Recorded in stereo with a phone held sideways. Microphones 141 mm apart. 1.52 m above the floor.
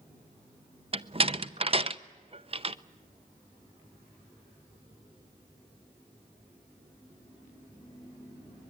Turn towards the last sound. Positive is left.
turn(degrees=-40)  # may be behind; listen again after turning